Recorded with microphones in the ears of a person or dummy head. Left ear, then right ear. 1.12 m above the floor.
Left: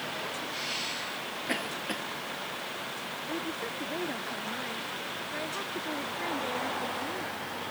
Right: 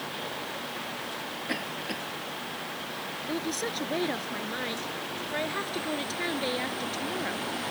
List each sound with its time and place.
1.5 s a cough: 15° left (ahead or behind)
3.3 s a woman speaking: 85° right